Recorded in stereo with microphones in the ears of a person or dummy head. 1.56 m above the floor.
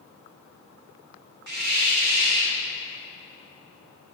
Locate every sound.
1.5 s a hiss: 55° right (ahead or behind), 1.1 m